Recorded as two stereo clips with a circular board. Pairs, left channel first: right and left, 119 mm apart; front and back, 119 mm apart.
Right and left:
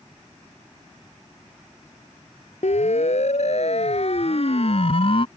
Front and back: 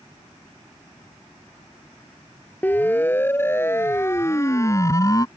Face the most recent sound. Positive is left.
turn(degrees=-55)